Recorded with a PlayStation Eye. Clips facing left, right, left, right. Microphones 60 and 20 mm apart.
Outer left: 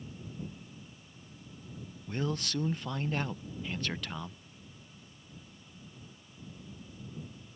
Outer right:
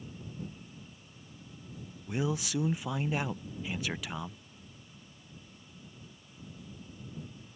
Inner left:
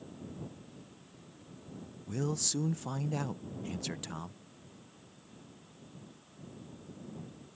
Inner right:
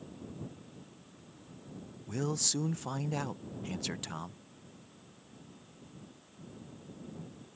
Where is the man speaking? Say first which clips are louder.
Outer right 2 dB, inner right 1 dB; 10° right (ahead or behind).